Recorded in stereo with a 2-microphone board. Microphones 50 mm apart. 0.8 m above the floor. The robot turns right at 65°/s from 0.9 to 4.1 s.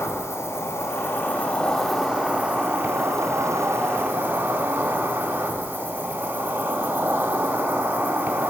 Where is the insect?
115° left, 2.0 m; by 8.5 s 35° right, 2.0 m.